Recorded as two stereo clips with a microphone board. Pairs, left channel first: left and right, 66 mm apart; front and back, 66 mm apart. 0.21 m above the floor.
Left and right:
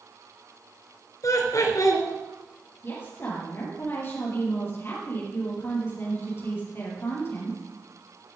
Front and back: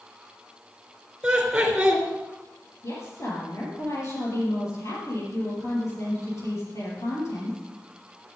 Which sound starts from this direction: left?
Laughter, at 1.2 s.